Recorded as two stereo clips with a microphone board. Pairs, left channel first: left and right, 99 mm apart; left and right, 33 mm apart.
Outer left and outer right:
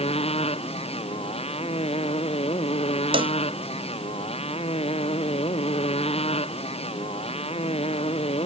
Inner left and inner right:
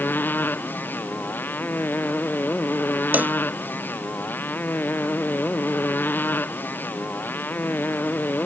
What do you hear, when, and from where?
0.0 s a motorcycle: 85° left
3.1 s a cowbell: 65° right (ahead or behind)